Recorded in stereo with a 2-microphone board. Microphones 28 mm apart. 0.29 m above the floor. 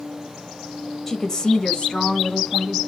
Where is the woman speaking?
10° left (ahead or behind), 1.2 m; by 2.8 s 50° left (ahead or behind), 2 m.